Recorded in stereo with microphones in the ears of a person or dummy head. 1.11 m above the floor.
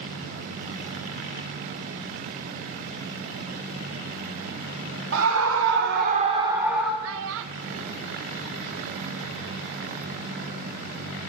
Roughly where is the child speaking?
Right.